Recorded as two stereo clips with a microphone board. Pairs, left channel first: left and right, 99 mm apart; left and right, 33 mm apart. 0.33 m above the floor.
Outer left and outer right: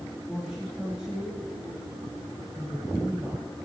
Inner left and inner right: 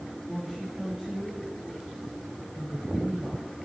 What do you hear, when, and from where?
0.3 s a woman speaking: 5° right (ahead or behind), 9.5 m